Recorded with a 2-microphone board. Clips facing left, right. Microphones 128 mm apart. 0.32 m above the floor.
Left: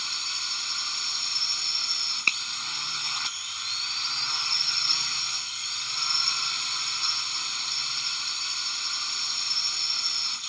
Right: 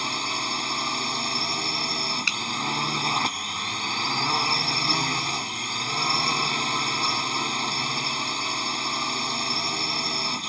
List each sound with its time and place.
0.0 s a drone: 60° right (ahead or behind)
2.3 s a finger snap: 50° left (ahead or behind)